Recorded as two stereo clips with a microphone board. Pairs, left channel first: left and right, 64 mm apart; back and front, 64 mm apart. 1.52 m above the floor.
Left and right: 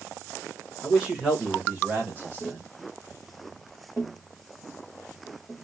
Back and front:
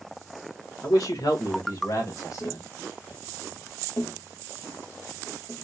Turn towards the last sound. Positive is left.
turn(degrees=-175)